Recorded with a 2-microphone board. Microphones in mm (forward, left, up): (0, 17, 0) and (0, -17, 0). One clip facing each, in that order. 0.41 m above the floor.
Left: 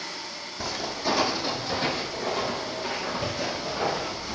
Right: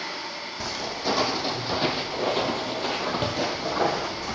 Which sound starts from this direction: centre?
Footsteps, at 0.6 s.